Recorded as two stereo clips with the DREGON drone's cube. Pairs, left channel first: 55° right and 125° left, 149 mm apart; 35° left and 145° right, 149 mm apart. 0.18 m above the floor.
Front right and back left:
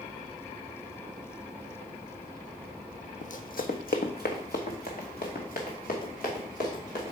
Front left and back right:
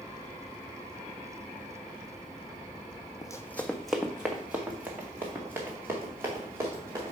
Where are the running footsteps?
30° right, 0.5 m; by 7.1 s 75° right, 3.5 m.